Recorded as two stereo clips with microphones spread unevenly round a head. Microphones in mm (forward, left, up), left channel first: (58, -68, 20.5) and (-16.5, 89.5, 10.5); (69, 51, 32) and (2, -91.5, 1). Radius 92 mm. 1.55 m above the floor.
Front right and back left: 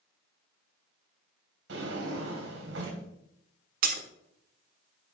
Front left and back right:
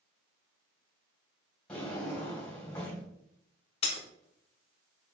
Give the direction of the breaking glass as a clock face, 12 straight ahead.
9 o'clock.